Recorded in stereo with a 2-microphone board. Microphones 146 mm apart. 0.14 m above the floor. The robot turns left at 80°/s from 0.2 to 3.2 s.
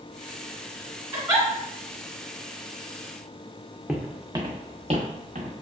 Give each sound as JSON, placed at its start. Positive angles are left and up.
{"t": 1.1, "sound": "a giggle", "side_deg": -20, "distance_m": 1.9}
{"t": 3.9, "sound": "footsteps", "side_deg": -5, "distance_m": 0.7}